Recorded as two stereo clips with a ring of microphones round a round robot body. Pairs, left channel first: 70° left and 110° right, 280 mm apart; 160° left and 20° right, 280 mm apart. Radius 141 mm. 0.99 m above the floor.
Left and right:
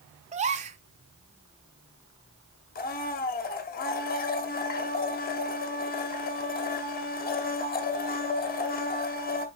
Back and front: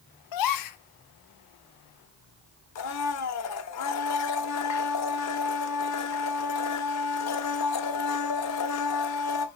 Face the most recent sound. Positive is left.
turn(degrees=125)